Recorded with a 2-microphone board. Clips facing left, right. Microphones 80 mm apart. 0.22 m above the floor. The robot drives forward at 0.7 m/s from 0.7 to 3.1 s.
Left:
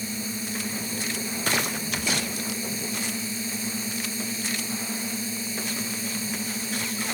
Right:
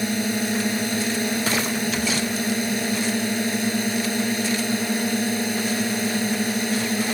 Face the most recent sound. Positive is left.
turn(degrees=-70)  # may be behind; listen again after turning